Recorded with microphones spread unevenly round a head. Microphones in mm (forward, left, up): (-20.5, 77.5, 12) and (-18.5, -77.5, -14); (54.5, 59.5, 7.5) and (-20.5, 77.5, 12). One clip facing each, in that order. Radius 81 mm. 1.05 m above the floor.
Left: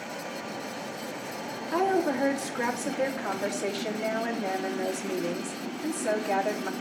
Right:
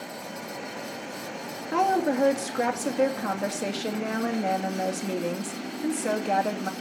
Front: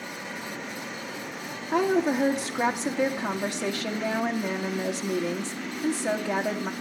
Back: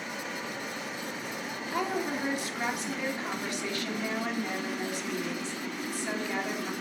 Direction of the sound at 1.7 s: 45° right.